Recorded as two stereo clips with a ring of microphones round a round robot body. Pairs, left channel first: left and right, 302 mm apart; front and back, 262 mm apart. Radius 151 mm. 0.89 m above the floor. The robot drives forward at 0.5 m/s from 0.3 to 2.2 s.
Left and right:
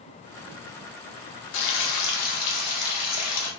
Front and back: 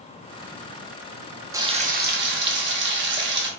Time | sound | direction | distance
1.5 | frying | 100° left | 0.5 m